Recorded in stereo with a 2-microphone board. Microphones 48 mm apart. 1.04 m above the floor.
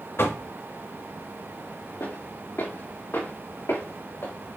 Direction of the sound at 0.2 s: 60° left (ahead or behind).